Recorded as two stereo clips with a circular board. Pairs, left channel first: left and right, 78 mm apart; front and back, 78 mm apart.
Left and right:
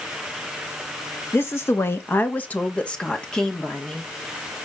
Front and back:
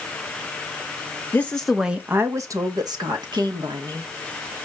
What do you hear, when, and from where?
1.3 s a woman speaking: 50° left, 0.9 m; by 4.1 s 175° left, 2.5 m